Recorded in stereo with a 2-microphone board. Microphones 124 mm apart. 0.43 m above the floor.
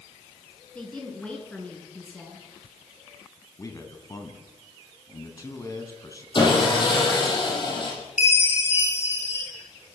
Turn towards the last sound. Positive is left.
turn(degrees=65)  # may be behind; listen again after turning